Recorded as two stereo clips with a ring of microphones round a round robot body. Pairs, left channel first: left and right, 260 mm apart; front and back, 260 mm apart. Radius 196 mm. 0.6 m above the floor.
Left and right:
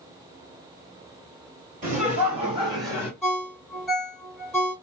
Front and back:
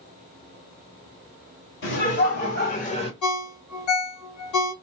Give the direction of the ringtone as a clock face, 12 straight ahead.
12 o'clock.